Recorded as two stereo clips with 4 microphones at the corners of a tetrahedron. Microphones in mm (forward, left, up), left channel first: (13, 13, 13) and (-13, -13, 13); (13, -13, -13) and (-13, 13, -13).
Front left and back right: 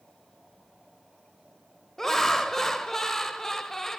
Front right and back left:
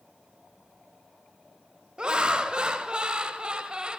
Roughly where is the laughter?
Behind left.